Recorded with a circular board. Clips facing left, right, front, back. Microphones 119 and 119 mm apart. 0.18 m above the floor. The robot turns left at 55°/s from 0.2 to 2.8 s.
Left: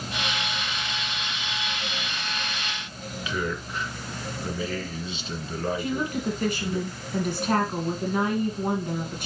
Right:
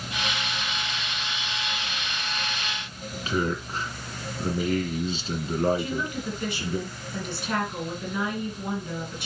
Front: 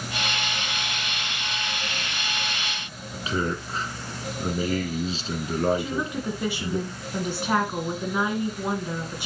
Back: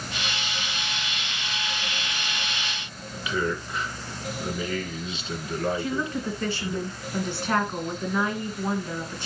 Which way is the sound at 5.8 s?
70° left.